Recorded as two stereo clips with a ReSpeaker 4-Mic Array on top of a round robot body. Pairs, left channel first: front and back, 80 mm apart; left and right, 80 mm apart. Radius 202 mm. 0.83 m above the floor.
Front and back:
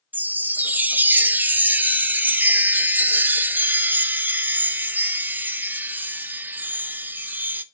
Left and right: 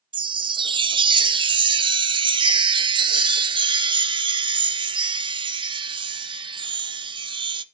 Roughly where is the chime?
Right.